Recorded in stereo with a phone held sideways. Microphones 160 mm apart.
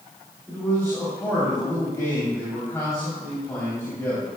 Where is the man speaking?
20° left (ahead or behind), 3.5 m.